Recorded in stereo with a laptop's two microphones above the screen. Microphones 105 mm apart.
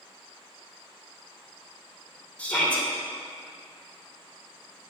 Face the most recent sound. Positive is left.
turn(degrees=15)  # may be behind; listen again after turning